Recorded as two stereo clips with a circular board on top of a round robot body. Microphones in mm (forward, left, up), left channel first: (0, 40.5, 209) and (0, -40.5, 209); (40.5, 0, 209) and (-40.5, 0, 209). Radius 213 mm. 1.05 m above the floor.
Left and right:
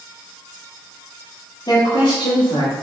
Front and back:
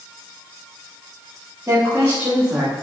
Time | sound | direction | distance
1.7 | a woman speaking | 115° left | 2.5 m